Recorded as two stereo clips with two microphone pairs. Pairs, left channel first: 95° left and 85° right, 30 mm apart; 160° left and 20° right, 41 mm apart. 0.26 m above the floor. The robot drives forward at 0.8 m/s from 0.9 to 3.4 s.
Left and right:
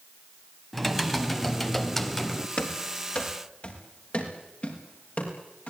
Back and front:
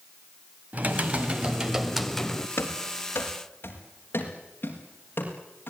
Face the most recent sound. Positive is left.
turn(degrees=125)